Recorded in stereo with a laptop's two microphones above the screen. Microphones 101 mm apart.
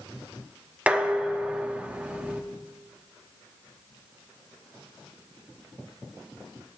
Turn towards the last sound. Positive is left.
turn(degrees=-15)  # may be behind; listen again after turning